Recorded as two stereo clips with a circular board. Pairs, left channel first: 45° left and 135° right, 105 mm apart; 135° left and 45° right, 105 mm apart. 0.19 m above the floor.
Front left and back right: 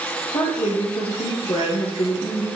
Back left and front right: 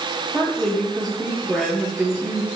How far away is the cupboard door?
I don't hear a cupboard door.